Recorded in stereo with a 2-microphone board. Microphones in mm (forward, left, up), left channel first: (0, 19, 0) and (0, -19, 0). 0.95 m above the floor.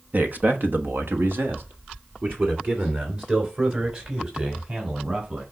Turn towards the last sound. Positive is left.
turn(degrees=-35)  # may be behind; listen again after turning